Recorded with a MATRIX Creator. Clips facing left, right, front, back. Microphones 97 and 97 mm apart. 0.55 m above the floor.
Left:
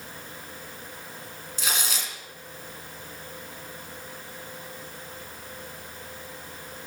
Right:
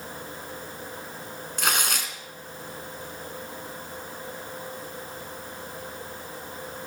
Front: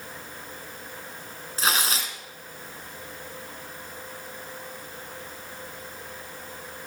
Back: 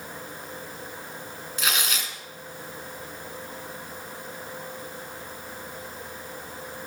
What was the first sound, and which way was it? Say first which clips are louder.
Tearing paper: right 4 dB, front 3 dB; 55° right.